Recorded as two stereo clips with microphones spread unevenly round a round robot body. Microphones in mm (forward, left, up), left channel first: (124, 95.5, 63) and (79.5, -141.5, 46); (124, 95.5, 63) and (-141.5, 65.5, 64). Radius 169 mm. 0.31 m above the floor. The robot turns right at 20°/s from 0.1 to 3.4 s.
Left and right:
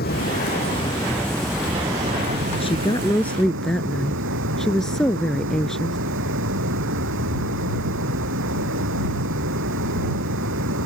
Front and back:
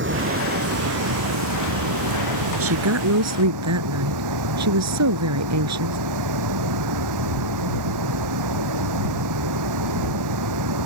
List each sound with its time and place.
0.0 s running water: 140° left; by 10.9 s 150° right
2.5 s a woman speaking: 150° left; by 6.0 s 170° left